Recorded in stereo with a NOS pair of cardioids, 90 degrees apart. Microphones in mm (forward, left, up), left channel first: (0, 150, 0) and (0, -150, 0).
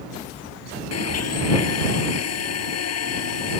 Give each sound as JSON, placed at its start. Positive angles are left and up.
{"t": 0.9, "sound": "a blender", "azimuth_deg": 55}